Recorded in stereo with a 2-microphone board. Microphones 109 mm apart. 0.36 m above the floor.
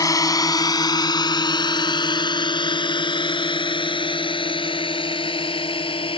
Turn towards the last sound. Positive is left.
turn(degrees=55)  # may be behind; listen again after turning